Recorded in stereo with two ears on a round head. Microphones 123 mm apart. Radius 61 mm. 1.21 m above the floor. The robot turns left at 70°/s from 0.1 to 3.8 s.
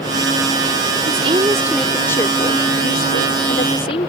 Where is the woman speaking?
125° right; by 4.1 s 45° left.